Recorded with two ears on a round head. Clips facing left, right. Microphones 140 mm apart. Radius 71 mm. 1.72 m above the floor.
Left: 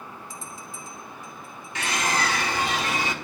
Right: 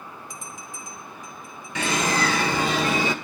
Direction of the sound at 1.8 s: 80° right.